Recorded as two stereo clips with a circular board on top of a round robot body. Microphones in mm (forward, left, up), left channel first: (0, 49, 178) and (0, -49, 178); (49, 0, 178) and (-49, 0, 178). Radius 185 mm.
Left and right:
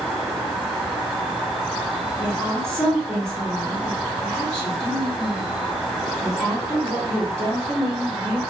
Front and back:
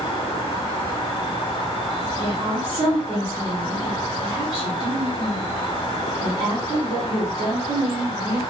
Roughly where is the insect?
Ahead.